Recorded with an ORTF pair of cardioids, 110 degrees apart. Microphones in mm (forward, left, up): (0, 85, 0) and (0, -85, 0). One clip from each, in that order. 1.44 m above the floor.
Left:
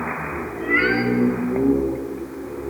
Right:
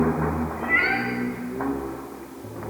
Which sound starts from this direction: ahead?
A cat meowing, at 0.6 s.